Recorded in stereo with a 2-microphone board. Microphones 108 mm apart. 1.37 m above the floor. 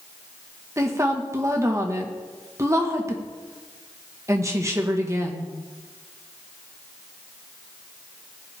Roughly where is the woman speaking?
Right.